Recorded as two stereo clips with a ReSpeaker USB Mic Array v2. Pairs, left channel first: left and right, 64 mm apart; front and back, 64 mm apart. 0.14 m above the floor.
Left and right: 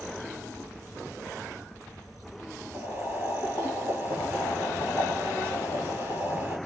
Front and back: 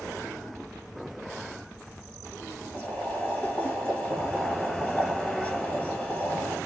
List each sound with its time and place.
2.7 s boiling: 55° right, 2 m